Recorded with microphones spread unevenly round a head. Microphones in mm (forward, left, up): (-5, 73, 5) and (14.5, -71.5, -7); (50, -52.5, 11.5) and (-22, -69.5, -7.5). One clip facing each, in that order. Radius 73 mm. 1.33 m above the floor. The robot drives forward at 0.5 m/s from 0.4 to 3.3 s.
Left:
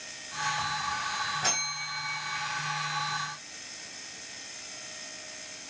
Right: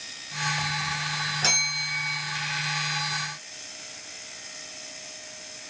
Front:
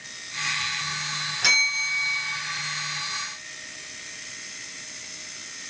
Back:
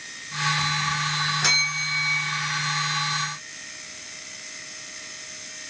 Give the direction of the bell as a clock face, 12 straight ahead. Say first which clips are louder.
Right 2 dB, front 1 dB; 3 o'clock.